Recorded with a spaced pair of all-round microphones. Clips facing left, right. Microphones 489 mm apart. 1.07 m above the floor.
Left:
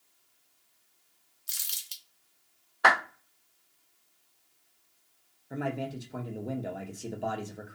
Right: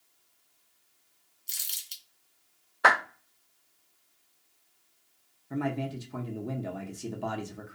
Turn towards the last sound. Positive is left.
turn(degrees=-20)  # may be behind; listen again after turning